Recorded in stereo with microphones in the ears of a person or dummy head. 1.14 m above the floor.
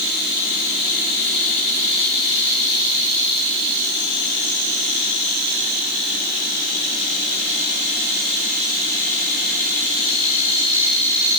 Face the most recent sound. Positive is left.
No sound to turn to.